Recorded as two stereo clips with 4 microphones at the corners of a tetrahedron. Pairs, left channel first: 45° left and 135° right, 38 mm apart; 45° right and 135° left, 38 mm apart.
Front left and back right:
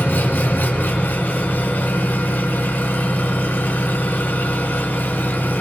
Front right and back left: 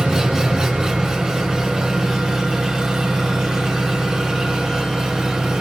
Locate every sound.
0.0 s an engine running: 60° left, 2 m